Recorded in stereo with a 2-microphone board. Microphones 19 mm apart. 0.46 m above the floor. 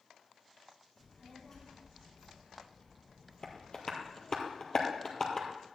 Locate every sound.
1.0 s a child speaking: 25° left (ahead or behind), 5 m; by 4.4 s 45° left (ahead or behind), 7.5 m
3.4 s tapping: 30° left (ahead or behind), 2 m